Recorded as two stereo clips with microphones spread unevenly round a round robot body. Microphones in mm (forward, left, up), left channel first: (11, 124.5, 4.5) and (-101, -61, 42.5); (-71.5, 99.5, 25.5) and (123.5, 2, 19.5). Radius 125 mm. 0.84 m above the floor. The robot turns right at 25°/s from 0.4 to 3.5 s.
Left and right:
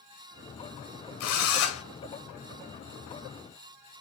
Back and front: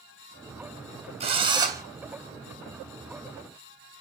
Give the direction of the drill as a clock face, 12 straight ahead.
11 o'clock.